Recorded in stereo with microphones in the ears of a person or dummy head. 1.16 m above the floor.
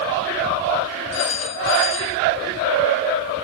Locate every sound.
1.1 s a phone ringing: 80° left, 3.5 m